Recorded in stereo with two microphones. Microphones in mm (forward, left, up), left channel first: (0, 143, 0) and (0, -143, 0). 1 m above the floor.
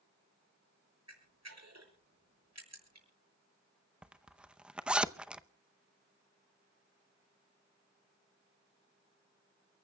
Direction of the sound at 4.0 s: 5° right (ahead or behind).